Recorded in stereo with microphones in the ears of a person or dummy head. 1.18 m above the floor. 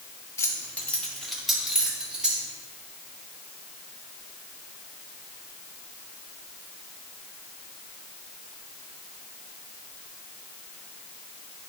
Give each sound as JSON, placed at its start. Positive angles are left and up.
{"t": 0.4, "sound": "keys jangling", "side_deg": 15, "distance_m": 1.1}